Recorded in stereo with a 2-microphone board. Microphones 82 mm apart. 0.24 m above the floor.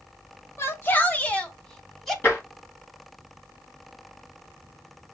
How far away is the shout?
About 1.1 m.